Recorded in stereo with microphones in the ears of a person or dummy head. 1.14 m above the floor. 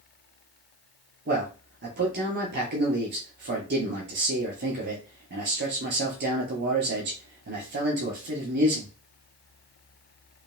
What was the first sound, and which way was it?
A man speaking, 50° right (ahead or behind).